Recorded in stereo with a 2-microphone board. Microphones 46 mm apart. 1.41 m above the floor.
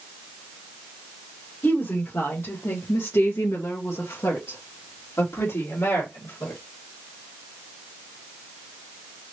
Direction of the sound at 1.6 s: 45° left (ahead or behind).